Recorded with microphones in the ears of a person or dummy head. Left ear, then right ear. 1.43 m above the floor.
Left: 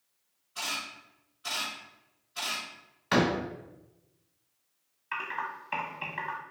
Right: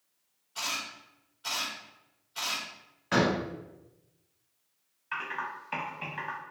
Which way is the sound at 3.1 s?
30° left (ahead or behind).